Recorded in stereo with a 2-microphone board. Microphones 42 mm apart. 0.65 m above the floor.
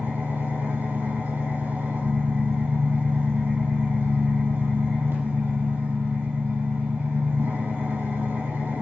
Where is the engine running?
85° right, 5.5 m.